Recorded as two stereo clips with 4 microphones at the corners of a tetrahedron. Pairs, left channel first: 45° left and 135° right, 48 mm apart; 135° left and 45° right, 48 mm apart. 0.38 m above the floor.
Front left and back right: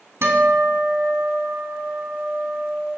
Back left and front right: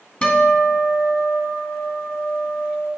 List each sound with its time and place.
0.2 s a guitar: 155° right, 2.0 m